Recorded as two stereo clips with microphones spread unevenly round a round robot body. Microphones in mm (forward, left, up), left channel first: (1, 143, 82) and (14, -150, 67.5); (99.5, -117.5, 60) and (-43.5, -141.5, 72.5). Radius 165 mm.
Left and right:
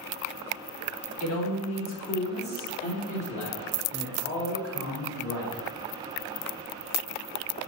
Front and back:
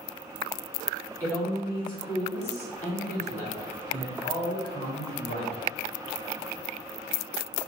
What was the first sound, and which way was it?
A man speaking, 80° left.